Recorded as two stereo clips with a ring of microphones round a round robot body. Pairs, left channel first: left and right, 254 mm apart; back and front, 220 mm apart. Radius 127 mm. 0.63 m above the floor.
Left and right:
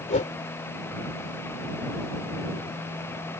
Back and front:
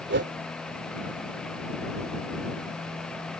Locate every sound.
0.1 s a whoosh: 30° left